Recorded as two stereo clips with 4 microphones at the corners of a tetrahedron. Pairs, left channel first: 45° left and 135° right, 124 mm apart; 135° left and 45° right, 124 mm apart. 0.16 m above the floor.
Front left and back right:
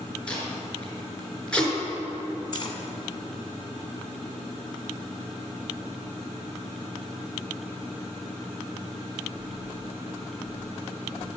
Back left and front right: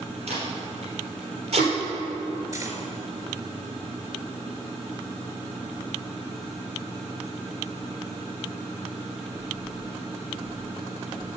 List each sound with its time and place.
0.3 s tape being pulled: 35° right, 3 m
2.5 s cutlery clinking: 10° left, 1.0 m